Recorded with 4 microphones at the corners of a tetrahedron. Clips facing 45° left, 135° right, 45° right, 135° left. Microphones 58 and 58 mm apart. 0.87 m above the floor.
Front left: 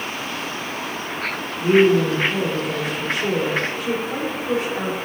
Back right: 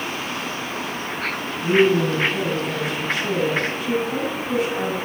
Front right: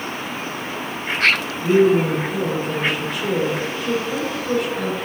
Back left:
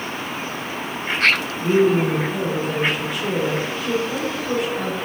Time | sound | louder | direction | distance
1.6 | a woman speaking | front left 2 dB, front right 2 dB | 45° left | 1.9 m